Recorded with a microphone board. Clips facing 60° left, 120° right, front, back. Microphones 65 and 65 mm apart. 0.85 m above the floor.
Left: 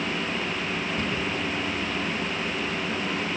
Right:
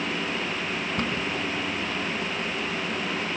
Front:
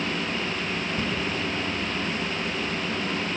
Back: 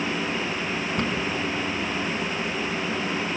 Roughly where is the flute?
No flute in this recording.